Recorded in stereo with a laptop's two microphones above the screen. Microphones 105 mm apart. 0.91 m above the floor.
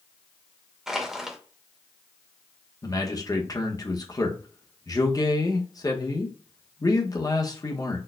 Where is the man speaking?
35° left (ahead or behind), 0.9 m.